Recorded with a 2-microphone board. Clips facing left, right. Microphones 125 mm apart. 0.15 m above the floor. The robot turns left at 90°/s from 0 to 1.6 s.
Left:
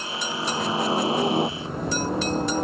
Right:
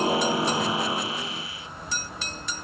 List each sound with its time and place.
0.0 s a helicopter: 120° right; by 2.6 s 95° left